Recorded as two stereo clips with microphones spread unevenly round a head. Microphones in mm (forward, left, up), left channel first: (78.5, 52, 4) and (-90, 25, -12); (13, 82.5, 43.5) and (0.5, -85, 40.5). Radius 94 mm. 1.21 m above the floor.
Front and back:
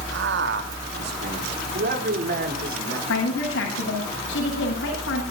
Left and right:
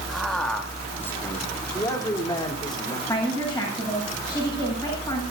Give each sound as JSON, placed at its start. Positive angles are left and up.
{"t": 0.1, "sound": "a man speaking", "azimuth_deg": 175, "distance_m": 2.0}
{"t": 3.1, "sound": "a woman speaking", "azimuth_deg": 10, "distance_m": 8.0}